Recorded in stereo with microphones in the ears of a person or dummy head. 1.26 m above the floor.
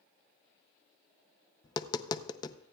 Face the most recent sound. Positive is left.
turn(degrees=25)  # may be behind; listen again after turning